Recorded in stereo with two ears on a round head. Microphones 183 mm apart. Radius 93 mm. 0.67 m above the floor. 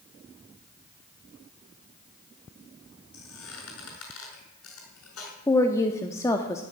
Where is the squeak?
70° left (ahead or behind), 5.5 m.